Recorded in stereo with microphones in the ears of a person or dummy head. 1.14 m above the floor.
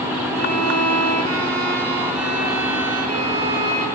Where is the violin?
70° right (ahead or behind), 0.7 m.